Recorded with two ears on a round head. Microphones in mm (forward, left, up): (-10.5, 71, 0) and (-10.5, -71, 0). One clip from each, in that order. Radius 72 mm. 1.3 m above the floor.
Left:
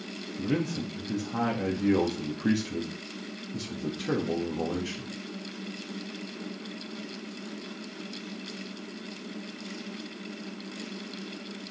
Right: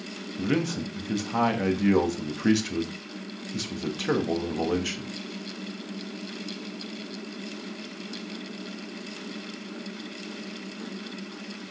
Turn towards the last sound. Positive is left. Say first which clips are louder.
# right 3 dB
turn(degrees=-55)  # may be behind; listen again after turning